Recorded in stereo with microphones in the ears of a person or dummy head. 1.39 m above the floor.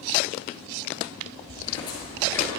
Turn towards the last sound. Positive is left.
turn(degrees=10)  # may be behind; listen again after turning